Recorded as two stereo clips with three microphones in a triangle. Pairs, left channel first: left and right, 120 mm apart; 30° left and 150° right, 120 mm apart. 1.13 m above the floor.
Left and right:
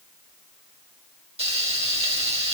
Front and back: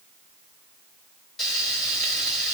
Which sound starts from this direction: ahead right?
Frying, at 1.4 s.